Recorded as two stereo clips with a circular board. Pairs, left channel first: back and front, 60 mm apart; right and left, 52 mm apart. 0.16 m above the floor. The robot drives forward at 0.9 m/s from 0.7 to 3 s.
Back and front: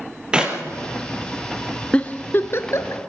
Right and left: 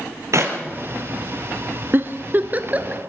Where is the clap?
75° left, 3.5 m.